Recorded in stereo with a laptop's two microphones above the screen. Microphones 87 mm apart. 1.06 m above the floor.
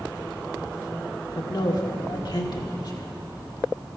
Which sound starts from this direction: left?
A man speaking, at 1.4 s.